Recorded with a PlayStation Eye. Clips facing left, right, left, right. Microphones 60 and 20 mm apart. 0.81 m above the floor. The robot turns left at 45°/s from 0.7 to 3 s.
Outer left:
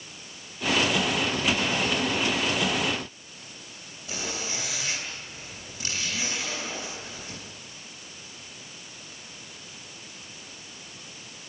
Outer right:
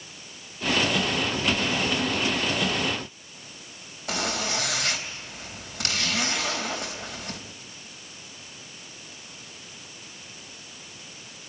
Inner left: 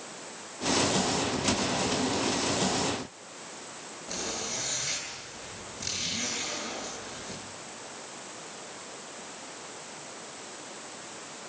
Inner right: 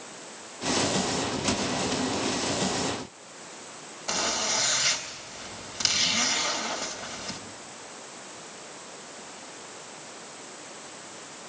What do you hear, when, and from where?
4.1 s a zipper: 70° right (ahead or behind), 3.5 m